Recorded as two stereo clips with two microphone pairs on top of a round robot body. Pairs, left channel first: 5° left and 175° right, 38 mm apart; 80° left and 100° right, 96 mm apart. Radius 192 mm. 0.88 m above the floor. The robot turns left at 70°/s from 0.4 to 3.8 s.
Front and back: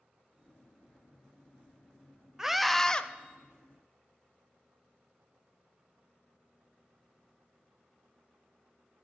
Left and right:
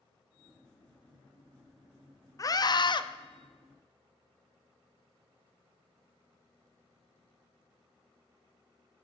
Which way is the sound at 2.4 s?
120° left.